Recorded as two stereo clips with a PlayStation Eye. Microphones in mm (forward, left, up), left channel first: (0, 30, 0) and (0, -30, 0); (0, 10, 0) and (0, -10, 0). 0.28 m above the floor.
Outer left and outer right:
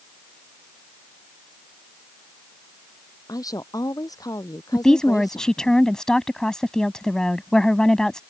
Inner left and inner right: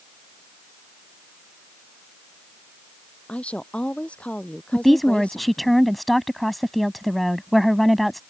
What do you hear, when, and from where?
3.3 s a woman speaking: 85° left
4.7 s a woman speaking: 10° left (ahead or behind)